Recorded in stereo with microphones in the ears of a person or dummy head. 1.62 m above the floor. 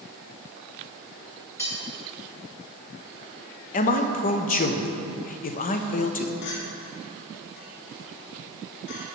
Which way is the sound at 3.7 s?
45° left (ahead or behind).